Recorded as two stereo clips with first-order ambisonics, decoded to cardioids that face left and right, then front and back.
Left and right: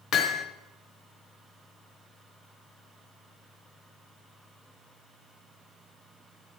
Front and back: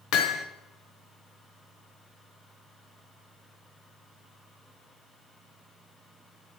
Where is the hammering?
35° left, 0.9 m.